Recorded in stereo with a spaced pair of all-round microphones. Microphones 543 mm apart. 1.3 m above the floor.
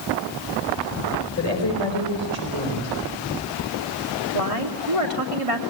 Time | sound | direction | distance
1.4 | a woman speaking | 25° left (ahead or behind) | 5 m
4.3 | a woman speaking | 75° right (ahead or behind) | 2.5 m